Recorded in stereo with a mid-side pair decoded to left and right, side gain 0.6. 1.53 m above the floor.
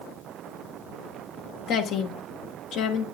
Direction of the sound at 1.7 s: 65° left.